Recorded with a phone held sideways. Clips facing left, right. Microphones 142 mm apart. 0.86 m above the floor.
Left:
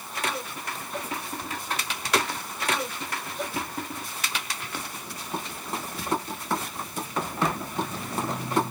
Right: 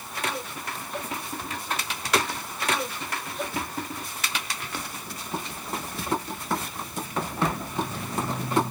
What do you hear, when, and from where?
Only background noise.